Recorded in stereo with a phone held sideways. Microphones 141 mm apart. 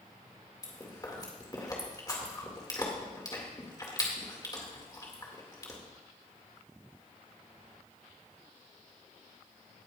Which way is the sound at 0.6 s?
30° left (ahead or behind).